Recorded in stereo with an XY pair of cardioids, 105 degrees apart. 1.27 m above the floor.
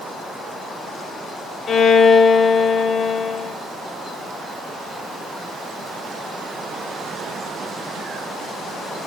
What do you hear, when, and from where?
1.7 s a violin: 50° left, 0.6 m